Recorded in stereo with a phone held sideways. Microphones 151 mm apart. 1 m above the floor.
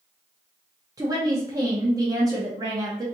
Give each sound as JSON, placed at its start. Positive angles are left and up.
{"t": 1.0, "sound": "a woman speaking", "side_deg": -25, "distance_m": 0.8}